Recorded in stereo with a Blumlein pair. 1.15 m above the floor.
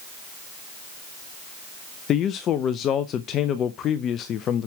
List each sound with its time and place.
2.1 s a man speaking: 30° left, 0.6 m